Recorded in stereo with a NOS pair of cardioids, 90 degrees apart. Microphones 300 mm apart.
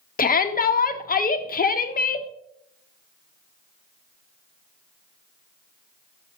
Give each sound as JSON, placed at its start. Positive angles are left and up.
{"t": 0.2, "sound": "a shout", "azimuth_deg": 30, "distance_m": 1.2}